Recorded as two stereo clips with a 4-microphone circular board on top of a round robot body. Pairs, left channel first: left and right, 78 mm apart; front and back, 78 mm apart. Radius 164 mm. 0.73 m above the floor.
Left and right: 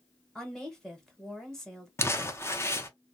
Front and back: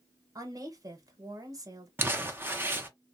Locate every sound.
0.3 s a woman speaking: 170° left, 1.2 m
2.0 s crumpling: 130° left, 0.9 m